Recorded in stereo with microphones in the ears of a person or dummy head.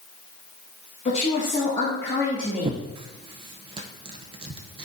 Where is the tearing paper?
25° right (ahead or behind), 0.6 m.